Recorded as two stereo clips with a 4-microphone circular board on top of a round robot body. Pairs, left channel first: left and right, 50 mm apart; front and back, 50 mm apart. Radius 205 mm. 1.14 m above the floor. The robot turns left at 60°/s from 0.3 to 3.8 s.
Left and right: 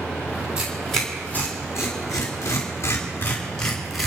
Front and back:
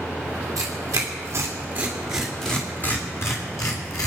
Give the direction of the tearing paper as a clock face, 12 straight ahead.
5 o'clock.